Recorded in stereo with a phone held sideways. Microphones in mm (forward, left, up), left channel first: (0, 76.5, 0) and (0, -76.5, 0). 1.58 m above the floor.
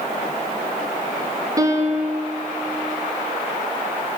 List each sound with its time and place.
1.6 s a piano: 20° right (ahead or behind), 0.7 m